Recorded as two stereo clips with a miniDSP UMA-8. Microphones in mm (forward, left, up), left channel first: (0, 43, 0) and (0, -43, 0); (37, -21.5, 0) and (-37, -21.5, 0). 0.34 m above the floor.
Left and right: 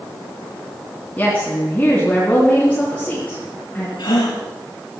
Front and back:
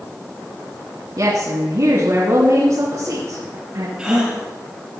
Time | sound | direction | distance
1.2 | a woman speaking | 160° left | 3 m
4.0 | a gasp | 100° left | 4.5 m